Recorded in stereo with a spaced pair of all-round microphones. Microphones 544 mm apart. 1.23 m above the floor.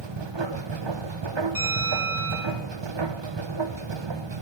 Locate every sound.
0.0 s a machine running: 55° right (ahead or behind), 0.8 m
1.6 s a bell: 40° right (ahead or behind), 6 m